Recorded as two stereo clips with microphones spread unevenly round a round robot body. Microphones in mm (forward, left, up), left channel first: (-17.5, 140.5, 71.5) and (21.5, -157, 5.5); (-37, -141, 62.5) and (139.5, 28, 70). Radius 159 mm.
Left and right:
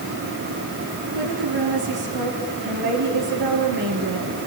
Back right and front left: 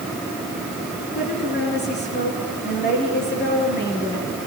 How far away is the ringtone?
No ringtone in this recording.